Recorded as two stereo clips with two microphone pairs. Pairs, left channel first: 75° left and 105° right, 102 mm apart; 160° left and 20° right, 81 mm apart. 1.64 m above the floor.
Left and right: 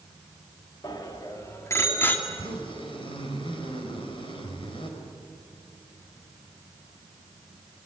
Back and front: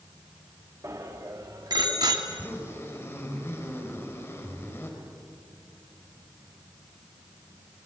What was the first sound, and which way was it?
A bicycle bell, 25° left.